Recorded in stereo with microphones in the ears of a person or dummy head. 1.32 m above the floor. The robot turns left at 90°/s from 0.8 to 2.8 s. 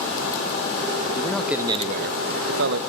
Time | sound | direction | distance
1.1 | a man speaking | 25° left | 1.6 m